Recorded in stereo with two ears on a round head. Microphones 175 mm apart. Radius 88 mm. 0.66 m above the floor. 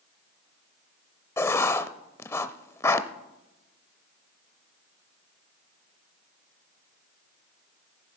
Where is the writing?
15° left (ahead or behind), 0.6 m.